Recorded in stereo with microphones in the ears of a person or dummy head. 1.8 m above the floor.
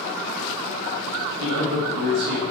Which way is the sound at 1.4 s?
65° right (ahead or behind).